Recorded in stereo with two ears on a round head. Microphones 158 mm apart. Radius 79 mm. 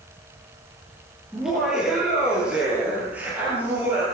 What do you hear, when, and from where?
1.3 s laughter: centre (ahead or behind), 9.5 m; by 4.0 s 15° right (ahead or behind), 9.5 m